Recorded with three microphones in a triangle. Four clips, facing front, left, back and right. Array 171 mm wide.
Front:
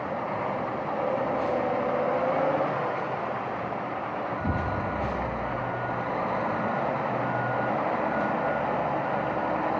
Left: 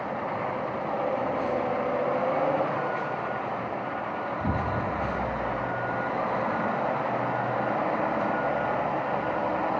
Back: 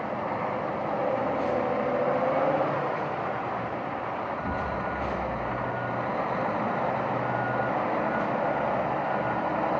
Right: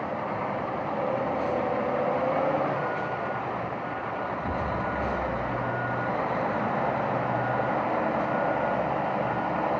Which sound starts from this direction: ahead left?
An explosion, at 4.4 s.